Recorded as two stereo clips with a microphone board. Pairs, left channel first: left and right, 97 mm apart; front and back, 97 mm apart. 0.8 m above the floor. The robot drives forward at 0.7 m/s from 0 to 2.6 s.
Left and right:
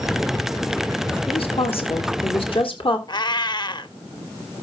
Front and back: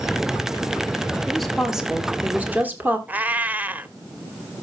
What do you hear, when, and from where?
1.3 s a woman speaking: 85° left, 2.5 m; by 3.0 s 110° left, 2.5 m
3.1 s a cat meowing: 110° left, 0.7 m